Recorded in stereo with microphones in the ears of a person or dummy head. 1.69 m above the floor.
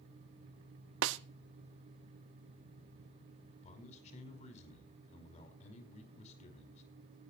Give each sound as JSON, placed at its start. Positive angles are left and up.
{"t": 1.0, "sound": "a snare drum", "side_deg": -80, "distance_m": 0.8}
{"t": 3.6, "sound": "a man speaking", "side_deg": 35, "distance_m": 5.0}